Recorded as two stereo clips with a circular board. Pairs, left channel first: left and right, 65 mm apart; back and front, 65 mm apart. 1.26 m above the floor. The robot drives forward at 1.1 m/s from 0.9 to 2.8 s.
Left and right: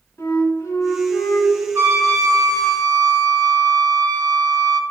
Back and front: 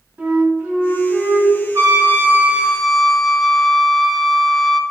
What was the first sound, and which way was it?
A flute, 50° left.